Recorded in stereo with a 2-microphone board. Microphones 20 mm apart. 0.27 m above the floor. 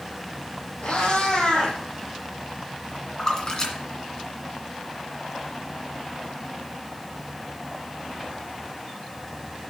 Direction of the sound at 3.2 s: 35° left (ahead or behind).